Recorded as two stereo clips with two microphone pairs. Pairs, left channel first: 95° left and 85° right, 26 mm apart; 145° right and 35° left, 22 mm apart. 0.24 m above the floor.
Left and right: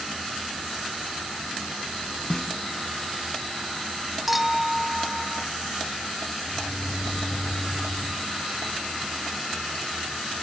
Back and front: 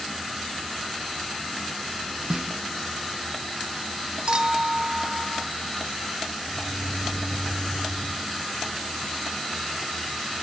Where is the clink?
5° right, 0.8 m.